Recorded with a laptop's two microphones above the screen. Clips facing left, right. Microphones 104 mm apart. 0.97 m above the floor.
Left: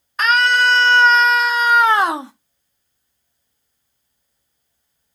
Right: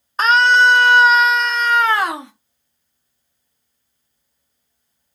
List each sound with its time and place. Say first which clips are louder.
0.2 s a scream: right 3 dB; 35° right (ahead or behind), 1.1 m; by 2.3 s 30° left (ahead or behind), 1.0 m